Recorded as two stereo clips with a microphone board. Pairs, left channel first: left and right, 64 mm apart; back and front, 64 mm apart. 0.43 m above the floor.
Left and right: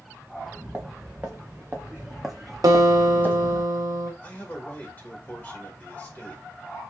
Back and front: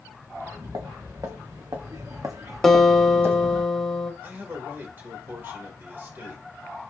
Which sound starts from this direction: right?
A guitar, at 2.6 s.